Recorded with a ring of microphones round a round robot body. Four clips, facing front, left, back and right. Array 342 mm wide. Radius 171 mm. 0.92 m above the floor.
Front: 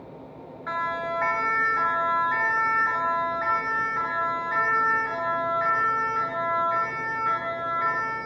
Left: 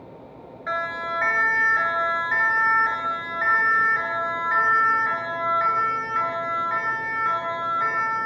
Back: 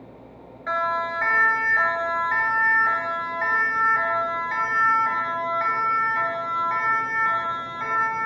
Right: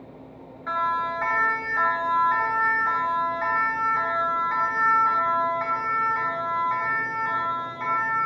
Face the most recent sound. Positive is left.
turn(degrees=155)